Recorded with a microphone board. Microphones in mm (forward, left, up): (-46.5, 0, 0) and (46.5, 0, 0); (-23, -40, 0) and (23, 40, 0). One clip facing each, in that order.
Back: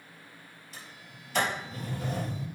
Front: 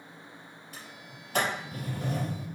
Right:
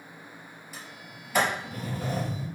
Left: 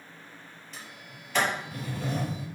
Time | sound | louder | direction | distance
0.7 | a sliding door | front 1 dB, right 1 dB | 40° right | 3.5 m